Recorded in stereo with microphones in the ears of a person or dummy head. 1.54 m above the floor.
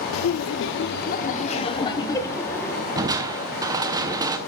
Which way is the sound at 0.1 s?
85° left.